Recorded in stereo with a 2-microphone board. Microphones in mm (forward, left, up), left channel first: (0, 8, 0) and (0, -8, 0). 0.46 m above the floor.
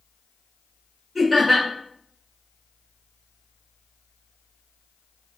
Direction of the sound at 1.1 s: Centre (ahead or behind).